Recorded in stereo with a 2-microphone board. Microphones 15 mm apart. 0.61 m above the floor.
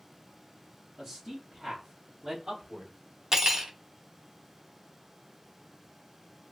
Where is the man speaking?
20° right (ahead or behind), 1.0 m; by 2.9 s 60° right (ahead or behind), 1.7 m.